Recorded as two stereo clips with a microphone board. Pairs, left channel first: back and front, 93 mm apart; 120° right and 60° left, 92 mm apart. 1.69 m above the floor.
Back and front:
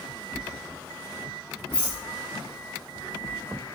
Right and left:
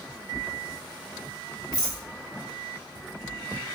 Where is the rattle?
65° left, 1.9 m.